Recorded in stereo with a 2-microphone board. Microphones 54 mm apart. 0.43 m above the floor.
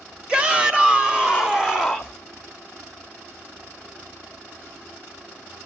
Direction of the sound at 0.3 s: 20° right (ahead or behind).